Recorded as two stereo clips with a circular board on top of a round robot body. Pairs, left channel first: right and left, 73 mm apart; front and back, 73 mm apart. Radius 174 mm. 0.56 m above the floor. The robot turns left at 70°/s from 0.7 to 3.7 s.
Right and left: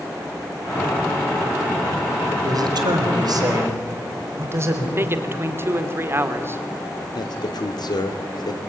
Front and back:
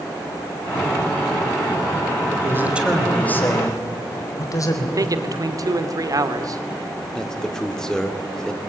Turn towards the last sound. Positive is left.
turn(degrees=-80)